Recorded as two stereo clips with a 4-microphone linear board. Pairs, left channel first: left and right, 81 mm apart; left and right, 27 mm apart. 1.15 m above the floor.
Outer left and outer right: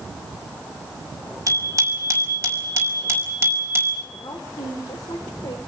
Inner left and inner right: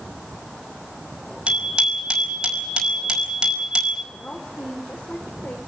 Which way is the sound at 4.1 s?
70° left (ahead or behind).